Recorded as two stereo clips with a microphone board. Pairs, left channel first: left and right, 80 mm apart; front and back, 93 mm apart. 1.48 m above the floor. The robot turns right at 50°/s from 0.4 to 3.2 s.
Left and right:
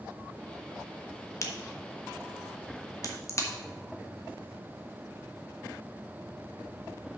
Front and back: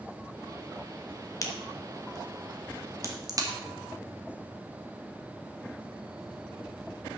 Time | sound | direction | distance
1.4 | a crack | 45° left | 1.2 m